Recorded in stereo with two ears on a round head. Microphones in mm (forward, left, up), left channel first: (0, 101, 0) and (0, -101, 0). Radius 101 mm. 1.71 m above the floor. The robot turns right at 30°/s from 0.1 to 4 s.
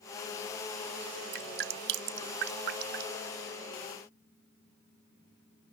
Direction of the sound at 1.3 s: 50° right (ahead or behind).